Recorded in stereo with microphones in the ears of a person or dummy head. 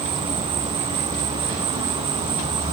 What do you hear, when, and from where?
0.0 s an insect: 30° right (ahead or behind)